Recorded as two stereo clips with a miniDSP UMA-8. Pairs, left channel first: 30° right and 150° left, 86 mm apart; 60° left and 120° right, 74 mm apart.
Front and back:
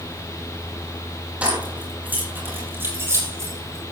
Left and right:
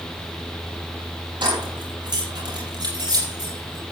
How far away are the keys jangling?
About 5.5 m.